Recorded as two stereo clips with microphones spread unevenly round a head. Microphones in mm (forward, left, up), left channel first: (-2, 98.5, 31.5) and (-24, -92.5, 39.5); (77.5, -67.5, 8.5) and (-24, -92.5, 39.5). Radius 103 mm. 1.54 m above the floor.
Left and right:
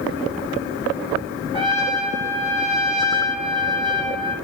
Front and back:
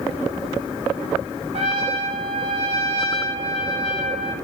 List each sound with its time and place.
1.5 s a trumpet: 160° right, 3 m